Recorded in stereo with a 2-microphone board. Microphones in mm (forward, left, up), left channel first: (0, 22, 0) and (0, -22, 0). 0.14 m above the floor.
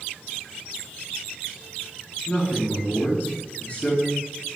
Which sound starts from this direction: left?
A man speaking, at 2.3 s.